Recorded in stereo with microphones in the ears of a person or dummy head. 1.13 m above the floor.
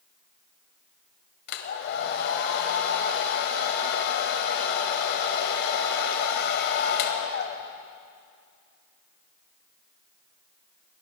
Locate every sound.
1.5 s a hair dryer: 60° left (ahead or behind), 1.7 m